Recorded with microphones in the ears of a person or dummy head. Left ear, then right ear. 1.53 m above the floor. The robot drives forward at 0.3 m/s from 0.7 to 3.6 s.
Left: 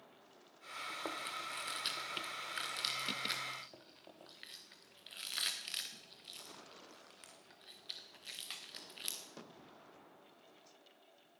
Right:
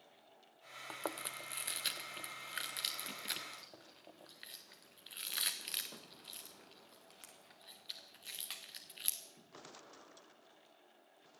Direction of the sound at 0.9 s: 30° right (ahead or behind).